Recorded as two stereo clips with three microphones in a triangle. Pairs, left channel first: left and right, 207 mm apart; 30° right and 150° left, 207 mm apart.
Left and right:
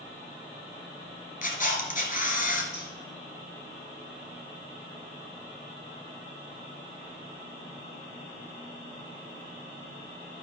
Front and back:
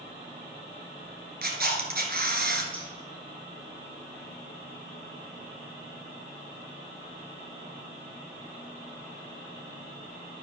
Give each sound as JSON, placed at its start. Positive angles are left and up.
{"t": 1.4, "sound": "a camera shutter", "azimuth_deg": 125, "distance_m": 1.6}
{"t": 2.7, "sound": "scissors", "azimuth_deg": 35, "distance_m": 4.5}